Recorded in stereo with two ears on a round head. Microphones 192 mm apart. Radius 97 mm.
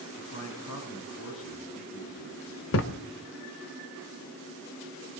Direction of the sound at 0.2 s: 60° left (ahead or behind).